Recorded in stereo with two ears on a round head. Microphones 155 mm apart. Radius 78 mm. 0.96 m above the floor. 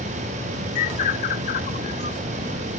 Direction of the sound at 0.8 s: 45° left (ahead or behind).